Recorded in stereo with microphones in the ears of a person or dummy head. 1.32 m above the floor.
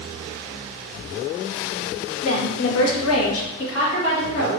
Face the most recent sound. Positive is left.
turn(degrees=65)  # may be behind; listen again after turning